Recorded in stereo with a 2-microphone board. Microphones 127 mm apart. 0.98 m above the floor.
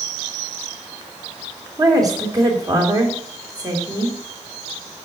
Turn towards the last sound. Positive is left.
turn(degrees=-30)  # may be behind; listen again after turning